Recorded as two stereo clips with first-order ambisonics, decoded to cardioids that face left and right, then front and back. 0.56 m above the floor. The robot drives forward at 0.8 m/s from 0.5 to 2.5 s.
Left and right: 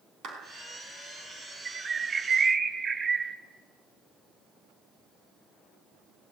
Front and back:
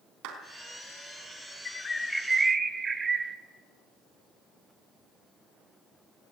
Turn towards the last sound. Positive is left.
turn(degrees=-135)